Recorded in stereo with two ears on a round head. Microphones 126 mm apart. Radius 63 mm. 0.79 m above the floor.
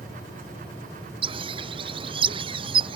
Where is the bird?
35° right (ahead or behind).